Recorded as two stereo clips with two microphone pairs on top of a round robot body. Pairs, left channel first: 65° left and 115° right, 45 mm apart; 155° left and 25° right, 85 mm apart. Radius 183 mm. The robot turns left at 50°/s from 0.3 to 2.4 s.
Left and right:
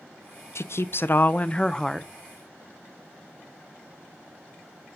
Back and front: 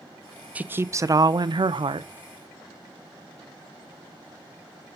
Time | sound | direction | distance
0.6 | a woman speaking | 45° left | 0.7 m